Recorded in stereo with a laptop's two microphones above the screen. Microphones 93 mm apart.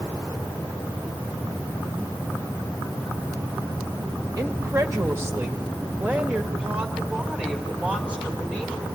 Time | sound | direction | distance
4.4 | a woman speaking | 40° right (ahead or behind) | 1.1 m